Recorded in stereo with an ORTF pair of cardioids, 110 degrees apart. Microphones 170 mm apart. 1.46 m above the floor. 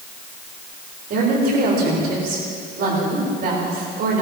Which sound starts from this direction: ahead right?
A woman speaking, at 1.1 s.